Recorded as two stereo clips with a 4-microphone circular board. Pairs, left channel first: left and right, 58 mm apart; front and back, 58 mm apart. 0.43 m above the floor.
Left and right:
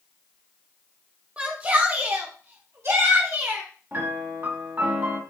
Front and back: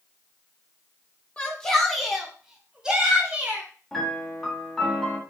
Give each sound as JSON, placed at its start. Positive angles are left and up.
{"t": 1.4, "sound": "a shout", "azimuth_deg": -50, "distance_m": 1.2}
{"t": 3.9, "sound": "a piano", "azimuth_deg": -80, "distance_m": 1.2}